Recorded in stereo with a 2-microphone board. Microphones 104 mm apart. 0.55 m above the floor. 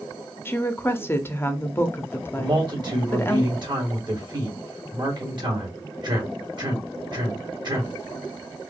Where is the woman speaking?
20° left (ahead or behind), 0.6 m.